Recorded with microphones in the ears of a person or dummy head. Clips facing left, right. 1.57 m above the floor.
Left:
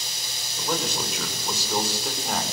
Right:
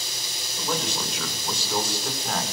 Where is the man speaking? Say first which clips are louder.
Left 1 dB; 5° left (ahead or behind), 5.5 m.